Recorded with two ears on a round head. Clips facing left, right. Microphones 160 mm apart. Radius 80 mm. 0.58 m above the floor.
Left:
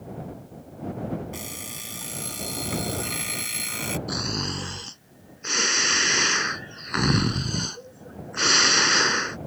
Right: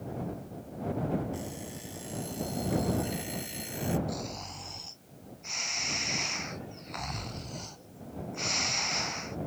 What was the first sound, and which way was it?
An alarm clock, 85° left.